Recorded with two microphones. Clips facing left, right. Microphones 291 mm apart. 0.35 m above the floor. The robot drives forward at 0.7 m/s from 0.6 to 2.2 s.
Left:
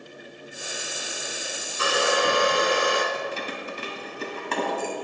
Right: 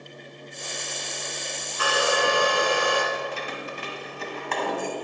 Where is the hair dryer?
30° left (ahead or behind), 1.0 m; by 3.0 s 20° left (ahead or behind), 1.2 m.